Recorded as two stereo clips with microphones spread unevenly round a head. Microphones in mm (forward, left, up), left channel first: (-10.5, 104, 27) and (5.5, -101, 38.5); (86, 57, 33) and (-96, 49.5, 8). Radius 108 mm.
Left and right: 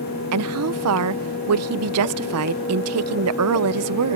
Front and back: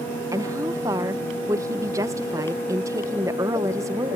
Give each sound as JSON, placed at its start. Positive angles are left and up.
{"t": 0.3, "sound": "a woman speaking", "azimuth_deg": -100}